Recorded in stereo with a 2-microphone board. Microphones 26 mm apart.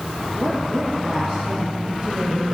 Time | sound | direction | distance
0.3 | a woman speaking | 70° right (ahead or behind) | 3.5 m